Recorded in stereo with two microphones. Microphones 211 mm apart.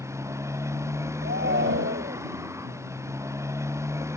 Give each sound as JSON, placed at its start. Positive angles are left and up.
{"t": 0.0, "sound": "a motorcycle", "side_deg": -15}
{"t": 1.2, "sound": "a shout", "side_deg": -60}